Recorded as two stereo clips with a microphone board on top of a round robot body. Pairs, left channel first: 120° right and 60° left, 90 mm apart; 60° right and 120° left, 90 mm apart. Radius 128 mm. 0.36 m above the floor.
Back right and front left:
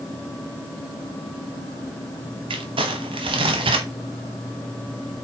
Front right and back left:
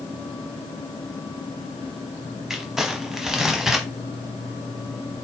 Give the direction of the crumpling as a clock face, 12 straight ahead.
11 o'clock.